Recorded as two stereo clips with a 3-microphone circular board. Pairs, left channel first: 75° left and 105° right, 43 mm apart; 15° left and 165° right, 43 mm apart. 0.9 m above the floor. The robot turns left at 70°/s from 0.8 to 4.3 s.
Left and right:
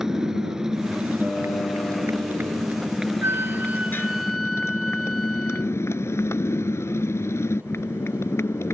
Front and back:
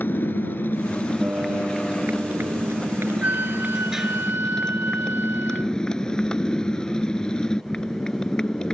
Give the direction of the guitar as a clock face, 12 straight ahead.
7 o'clock.